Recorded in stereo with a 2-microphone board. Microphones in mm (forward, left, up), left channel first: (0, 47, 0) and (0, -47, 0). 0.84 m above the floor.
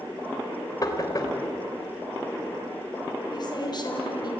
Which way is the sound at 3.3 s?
50° left (ahead or behind).